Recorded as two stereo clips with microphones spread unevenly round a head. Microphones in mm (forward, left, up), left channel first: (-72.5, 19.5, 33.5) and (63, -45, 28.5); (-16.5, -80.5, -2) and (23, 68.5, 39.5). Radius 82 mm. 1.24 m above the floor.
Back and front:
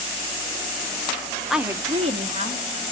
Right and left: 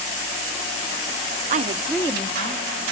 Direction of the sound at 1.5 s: 60° left.